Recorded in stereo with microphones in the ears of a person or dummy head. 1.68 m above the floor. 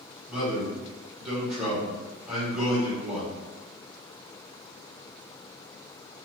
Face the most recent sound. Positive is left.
turn(degrees=0)  # may be behind; listen again after turning